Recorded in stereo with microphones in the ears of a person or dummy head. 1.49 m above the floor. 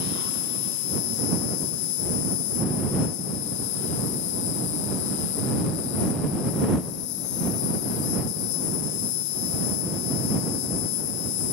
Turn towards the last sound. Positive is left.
turn(degrees=65)  # may be behind; listen again after turning